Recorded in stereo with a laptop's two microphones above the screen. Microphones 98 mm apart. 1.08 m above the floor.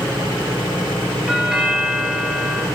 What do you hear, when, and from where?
1.3 s a doorbell: 5° right (ahead or behind), 3 m